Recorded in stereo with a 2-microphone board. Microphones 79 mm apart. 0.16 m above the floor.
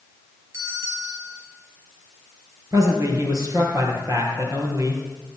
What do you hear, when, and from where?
0.5 s a bell: 40° right (ahead or behind), 3.5 m
2.7 s a man speaking: 45° right (ahead or behind), 3 m